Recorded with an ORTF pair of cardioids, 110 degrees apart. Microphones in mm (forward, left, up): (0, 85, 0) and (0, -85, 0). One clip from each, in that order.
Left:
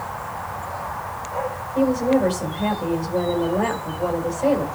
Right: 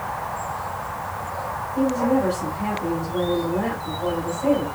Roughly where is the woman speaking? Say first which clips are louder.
Left 2 dB; ahead left.